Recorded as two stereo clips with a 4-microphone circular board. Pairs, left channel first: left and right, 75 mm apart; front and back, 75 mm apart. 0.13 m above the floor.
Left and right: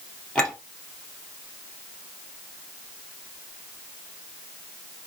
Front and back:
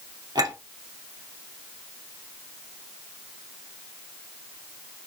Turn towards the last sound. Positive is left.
turn(degrees=170)